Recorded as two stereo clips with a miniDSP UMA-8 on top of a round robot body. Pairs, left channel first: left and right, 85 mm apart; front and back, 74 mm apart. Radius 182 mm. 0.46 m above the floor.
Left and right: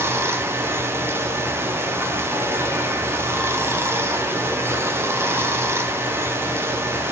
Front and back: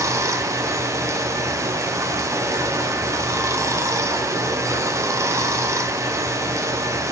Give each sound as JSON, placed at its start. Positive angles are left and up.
{"t": 0.0, "sound": "running water", "azimuth_deg": -145, "distance_m": 0.8}